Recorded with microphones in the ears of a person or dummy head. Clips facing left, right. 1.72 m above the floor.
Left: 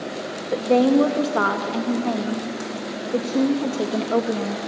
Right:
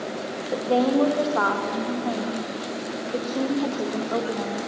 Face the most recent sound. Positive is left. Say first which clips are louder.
# left 4 dB
turn(degrees=40)  # may be behind; listen again after turning